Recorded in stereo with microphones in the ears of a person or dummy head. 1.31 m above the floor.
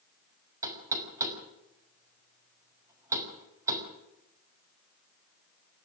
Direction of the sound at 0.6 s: 15° right (ahead or behind).